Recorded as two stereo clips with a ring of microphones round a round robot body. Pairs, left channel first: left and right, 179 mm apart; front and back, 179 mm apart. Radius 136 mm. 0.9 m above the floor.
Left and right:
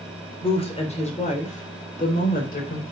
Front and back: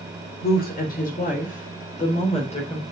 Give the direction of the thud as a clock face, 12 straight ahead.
I don't hear a thud.